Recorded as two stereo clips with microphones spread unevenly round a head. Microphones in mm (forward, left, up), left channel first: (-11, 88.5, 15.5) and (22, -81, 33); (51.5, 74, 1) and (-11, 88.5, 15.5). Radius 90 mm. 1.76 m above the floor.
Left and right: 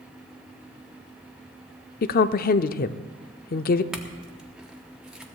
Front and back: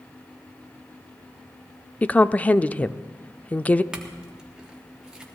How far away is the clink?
About 0.8 m.